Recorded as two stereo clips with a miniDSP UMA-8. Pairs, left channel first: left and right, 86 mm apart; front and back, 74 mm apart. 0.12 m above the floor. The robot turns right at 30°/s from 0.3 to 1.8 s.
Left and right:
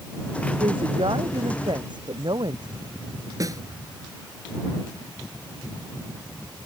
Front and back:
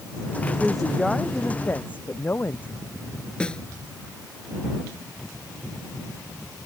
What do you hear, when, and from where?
0.6 s a woman speaking: 100° right; by 2.7 s 65° right
3.4 s a snare drum: 70° right